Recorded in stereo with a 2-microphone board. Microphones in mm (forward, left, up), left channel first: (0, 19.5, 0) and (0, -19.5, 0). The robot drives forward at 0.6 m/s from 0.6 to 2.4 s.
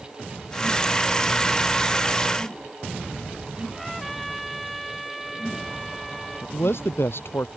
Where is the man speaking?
75° left (ahead or behind).